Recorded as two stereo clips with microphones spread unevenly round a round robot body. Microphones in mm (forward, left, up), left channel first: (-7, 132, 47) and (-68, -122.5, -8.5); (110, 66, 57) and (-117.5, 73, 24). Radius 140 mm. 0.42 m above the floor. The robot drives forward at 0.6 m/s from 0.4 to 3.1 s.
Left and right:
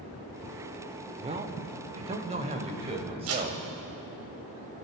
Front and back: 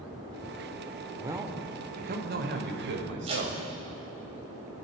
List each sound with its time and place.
1.2 s a man speaking: 120° right, 0.9 m; by 3.6 s 160° right, 1.6 m
3.3 s tape being pulled: 115° right, 1.3 m